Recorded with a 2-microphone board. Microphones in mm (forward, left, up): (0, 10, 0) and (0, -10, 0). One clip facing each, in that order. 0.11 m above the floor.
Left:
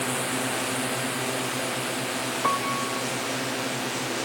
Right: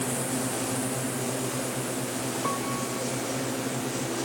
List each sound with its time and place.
0.0 s a drone: 40° left (ahead or behind); by 4.3 s 35° left (ahead or behind)
2.4 s a piano: 35° left (ahead or behind)